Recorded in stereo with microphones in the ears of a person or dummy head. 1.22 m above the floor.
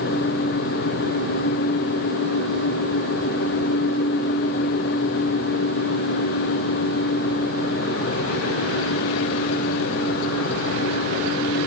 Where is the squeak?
I don't hear a squeak.